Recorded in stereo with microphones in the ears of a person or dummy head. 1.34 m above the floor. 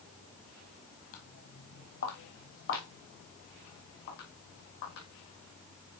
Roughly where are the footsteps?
Left.